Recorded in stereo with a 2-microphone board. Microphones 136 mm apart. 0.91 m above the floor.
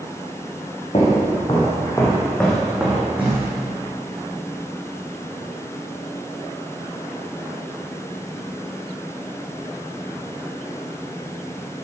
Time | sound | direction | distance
0.9 | footsteps | 50° left (ahead or behind) | 3.5 m